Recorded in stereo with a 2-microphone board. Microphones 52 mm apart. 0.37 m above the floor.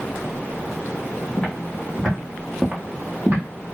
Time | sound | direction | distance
1.4 | footsteps | 15° left (ahead or behind) | 1.3 m